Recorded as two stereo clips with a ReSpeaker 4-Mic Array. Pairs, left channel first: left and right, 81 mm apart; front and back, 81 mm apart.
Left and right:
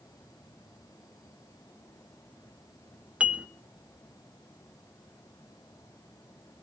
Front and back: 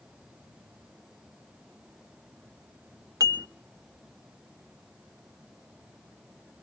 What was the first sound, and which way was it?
Dishes clattering, 160° right.